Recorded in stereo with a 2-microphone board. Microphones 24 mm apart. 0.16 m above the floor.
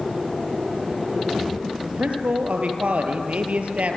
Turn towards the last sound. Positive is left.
turn(degrees=-70)  # may be behind; listen again after turning